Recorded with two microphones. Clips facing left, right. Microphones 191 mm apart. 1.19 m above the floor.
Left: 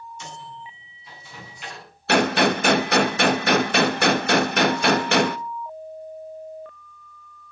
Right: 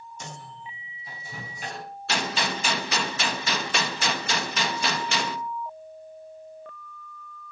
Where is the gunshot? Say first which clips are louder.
Left 11 dB; 60° left (ahead or behind), 0.7 m.